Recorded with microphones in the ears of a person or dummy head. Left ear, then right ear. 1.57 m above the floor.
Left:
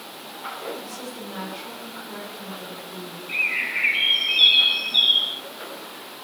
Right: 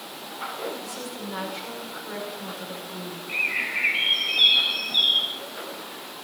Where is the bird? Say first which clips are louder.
Left 2 dB; 15° left (ahead or behind), 0.7 m.